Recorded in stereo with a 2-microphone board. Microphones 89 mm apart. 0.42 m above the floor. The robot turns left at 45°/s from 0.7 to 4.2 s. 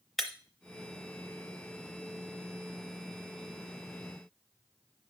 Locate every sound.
0.2 s breaking glass: centre (ahead or behind), 1.1 m